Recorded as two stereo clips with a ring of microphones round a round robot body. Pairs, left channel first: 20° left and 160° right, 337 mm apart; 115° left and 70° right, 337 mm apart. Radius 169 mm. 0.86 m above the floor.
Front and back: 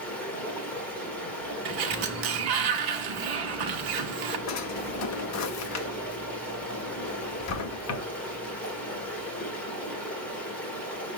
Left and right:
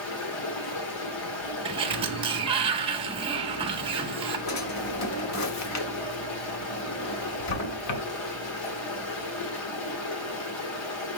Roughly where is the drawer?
Left.